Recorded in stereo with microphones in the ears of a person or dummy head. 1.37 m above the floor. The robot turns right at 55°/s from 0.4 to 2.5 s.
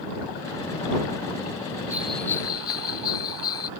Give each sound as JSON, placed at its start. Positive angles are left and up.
{"t": 1.9, "sound": "a bell", "azimuth_deg": -10}